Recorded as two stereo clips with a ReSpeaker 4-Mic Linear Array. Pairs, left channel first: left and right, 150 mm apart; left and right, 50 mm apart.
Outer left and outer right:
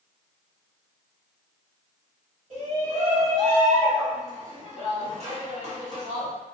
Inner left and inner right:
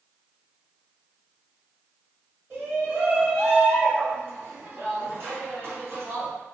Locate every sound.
2.5 s a shout: 45° right (ahead or behind), 1.7 m